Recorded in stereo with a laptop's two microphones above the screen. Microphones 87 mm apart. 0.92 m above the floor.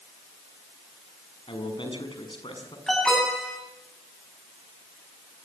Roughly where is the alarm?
Centre.